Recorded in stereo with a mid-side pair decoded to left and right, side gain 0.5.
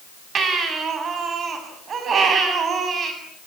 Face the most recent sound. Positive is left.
turn(degrees=-45)